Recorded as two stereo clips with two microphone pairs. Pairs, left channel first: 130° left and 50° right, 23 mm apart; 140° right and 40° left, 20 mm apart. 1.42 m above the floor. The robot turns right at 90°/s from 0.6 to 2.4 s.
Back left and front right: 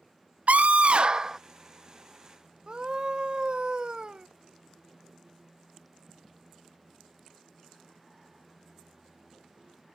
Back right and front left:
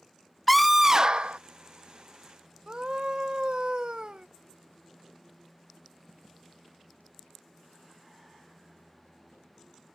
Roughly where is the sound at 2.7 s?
Ahead.